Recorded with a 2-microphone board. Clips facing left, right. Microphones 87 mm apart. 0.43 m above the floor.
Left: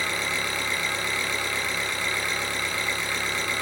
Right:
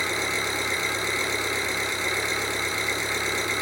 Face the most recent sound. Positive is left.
turn(degrees=-20)  # may be behind; listen again after turning